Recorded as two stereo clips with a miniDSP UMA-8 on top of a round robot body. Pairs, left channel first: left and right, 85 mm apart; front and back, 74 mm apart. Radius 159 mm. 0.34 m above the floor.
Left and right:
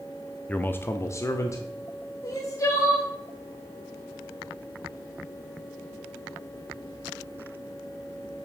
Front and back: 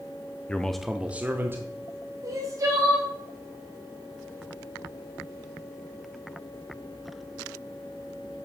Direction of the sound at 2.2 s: 140° left.